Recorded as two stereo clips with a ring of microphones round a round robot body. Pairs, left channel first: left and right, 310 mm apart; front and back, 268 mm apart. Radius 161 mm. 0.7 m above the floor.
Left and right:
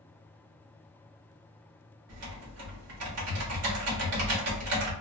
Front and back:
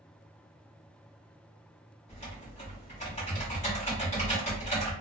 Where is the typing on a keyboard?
60° right, 1.2 m.